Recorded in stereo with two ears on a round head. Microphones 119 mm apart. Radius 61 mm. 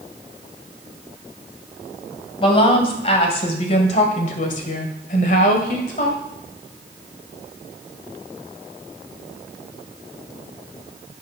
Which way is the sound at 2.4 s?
45° left (ahead or behind).